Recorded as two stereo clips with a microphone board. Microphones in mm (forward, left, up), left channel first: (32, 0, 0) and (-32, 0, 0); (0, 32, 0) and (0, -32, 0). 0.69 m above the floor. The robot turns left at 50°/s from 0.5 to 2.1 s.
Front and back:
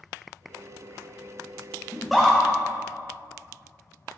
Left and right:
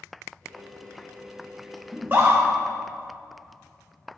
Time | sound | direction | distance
1.9 | a scream | 80° right | 1.0 m